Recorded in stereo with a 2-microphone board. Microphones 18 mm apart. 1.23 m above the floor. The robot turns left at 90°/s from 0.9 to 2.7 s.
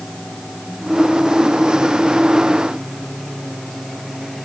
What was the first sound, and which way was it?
Only background noise.